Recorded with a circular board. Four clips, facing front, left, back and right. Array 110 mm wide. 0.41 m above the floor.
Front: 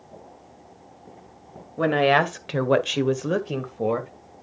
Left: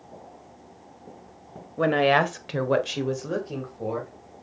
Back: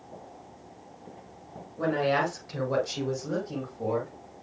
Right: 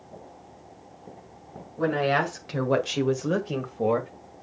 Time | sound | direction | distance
1.8 | a woman speaking | 45° left | 1.9 m